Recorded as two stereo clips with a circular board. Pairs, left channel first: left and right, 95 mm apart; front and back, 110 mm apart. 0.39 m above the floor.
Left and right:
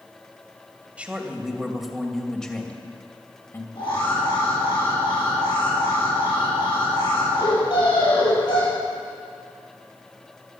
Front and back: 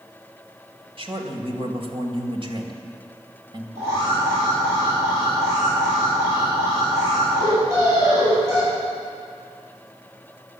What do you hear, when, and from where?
1.0 s a man speaking: 165° right, 2 m; by 3.6 s 145° left, 2 m
3.8 s an alarm: 120° left, 7 m